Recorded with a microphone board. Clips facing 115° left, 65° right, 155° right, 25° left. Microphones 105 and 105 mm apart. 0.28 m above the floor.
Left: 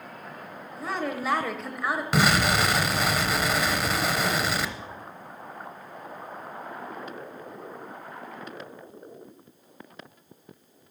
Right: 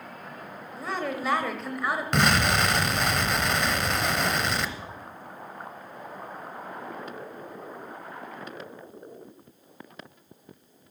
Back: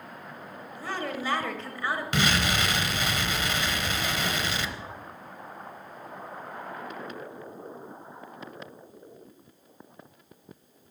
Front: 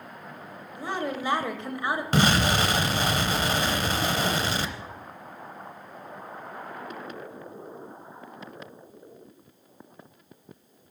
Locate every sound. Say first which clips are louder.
0.8 s a woman speaking: left 1 dB, front 3 dB; 25° left, 0.9 m
2.1 s an explosion: left 1 dB, front 5 dB; 30° left, 0.7 m